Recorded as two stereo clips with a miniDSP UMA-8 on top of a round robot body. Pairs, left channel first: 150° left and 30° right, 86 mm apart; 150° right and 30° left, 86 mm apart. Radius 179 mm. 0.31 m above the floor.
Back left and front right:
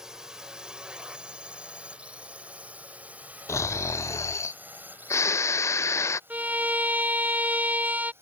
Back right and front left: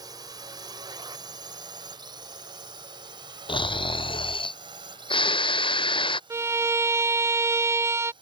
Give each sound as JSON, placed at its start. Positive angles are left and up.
{"t": 0.0, "sound": "a drone", "azimuth_deg": 50}
{"t": 3.5, "sound": "snoring", "azimuth_deg": -155}
{"t": 6.3, "sound": "a violin", "azimuth_deg": 20}